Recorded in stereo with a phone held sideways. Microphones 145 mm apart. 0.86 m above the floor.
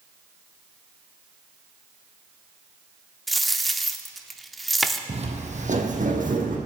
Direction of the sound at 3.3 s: Centre (ahead or behind).